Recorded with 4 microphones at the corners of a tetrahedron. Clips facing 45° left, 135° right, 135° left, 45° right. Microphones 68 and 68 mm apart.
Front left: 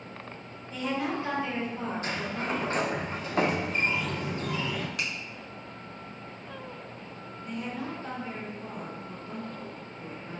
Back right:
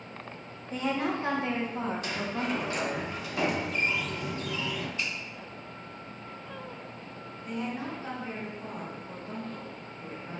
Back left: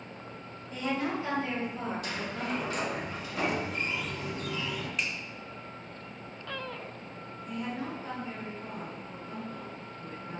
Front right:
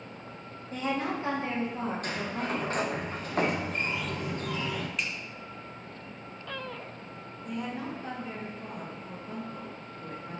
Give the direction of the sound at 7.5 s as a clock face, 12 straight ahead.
2 o'clock.